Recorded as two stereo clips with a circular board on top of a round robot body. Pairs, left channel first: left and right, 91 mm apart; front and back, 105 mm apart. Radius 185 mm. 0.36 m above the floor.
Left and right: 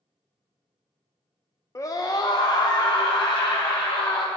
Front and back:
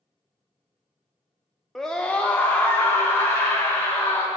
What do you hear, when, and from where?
1.8 s a scream: 85° left, 1.0 m; by 4.3 s 65° left, 2.5 m